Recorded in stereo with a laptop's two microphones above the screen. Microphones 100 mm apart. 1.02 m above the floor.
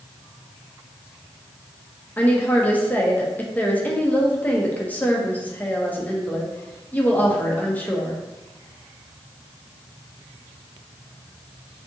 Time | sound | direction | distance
2.2 | a woman speaking | 15° left (ahead or behind) | 0.7 m